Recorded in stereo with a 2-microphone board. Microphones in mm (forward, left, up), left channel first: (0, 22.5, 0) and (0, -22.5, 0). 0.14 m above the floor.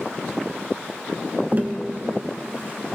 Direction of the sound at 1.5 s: 40° right (ahead or behind).